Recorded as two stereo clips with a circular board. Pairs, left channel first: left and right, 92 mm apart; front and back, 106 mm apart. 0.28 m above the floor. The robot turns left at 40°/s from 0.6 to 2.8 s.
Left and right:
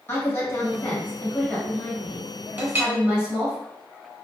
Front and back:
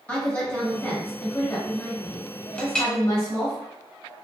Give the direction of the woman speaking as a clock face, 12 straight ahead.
10 o'clock.